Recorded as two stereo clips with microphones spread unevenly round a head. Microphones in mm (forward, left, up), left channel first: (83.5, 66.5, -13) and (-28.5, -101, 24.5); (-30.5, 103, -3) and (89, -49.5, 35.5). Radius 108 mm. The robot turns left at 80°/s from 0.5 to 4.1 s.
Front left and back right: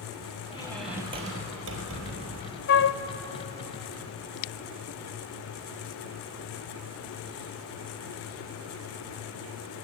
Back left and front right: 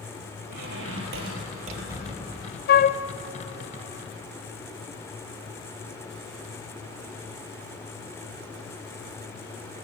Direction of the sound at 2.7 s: 100° left.